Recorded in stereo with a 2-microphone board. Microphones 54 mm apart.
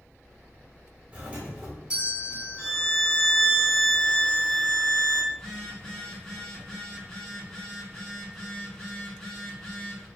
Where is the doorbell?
20° right (ahead or behind), 1.4 m.